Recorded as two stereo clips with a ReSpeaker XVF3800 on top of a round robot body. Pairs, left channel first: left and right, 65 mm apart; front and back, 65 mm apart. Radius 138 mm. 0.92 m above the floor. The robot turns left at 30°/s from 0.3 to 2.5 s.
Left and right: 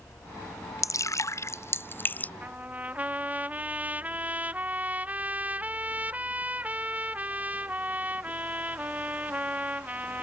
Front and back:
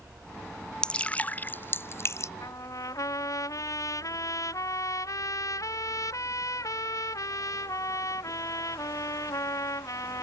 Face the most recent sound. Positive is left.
turn(degrees=-25)